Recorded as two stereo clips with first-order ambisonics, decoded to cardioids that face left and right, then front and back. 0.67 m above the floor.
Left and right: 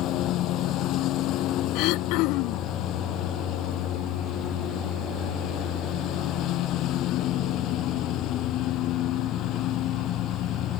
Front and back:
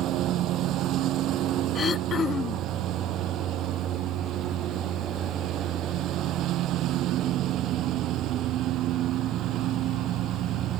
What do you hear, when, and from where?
0.0 s a lawn mower: 135° left
1.8 s throat clearing: 65° left